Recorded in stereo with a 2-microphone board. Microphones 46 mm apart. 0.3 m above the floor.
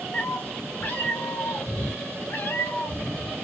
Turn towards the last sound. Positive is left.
turn(degrees=65)  # may be behind; listen again after turning